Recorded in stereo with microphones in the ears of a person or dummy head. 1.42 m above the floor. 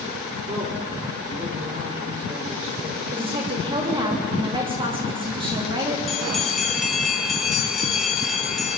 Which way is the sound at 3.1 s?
30° right (ahead or behind).